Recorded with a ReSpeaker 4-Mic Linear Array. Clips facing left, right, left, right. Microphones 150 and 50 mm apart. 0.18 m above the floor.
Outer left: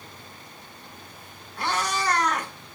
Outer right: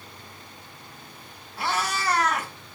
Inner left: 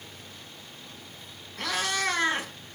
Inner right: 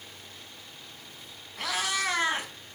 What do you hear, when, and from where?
1.6 s a cat meowing: 5° right (ahead or behind), 0.7 m